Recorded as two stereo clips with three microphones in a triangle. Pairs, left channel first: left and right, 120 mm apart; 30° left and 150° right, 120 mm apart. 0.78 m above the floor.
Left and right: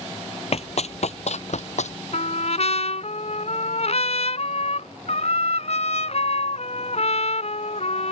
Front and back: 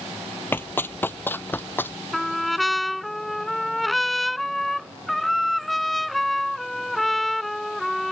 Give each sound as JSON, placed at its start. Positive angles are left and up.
{"t": 0.5, "sound": "running footsteps", "azimuth_deg": 100}
{"t": 2.1, "sound": "a trumpet", "azimuth_deg": 120}